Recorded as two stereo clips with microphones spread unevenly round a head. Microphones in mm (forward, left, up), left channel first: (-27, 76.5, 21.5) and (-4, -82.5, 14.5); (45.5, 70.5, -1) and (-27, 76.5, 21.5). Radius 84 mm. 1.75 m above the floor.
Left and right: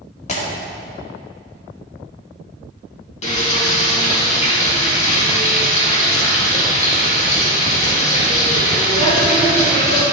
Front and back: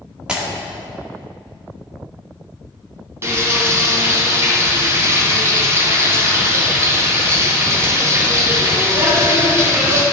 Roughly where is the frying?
Behind left.